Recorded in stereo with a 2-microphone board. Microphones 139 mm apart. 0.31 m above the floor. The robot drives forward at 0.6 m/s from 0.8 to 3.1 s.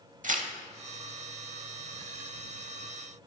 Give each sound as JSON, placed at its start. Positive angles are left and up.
{"t": 0.2, "sound": "tearing paper", "side_deg": -65, "distance_m": 0.7}